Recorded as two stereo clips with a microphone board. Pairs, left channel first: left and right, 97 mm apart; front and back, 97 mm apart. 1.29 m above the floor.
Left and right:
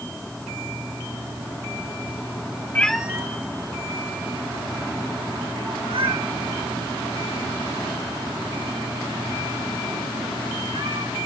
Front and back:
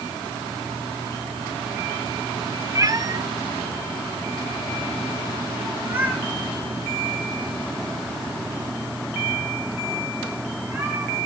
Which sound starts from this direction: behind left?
A cat meowing, at 2.8 s.